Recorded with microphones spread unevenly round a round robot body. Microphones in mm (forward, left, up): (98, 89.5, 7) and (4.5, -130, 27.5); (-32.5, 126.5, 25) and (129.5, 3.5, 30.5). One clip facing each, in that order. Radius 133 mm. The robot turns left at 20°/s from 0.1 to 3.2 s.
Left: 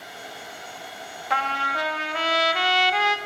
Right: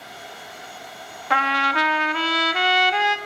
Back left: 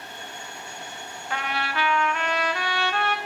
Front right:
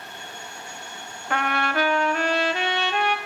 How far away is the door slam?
I don't hear a door slam.